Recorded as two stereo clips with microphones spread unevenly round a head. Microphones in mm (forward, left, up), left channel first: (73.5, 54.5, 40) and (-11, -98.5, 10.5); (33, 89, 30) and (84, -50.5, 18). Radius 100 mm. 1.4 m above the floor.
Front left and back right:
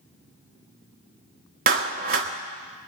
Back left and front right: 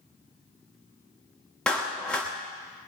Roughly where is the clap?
Behind.